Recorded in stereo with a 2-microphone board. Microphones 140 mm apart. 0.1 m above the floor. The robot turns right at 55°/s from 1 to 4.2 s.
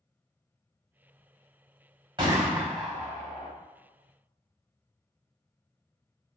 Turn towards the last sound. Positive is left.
turn(degrees=75)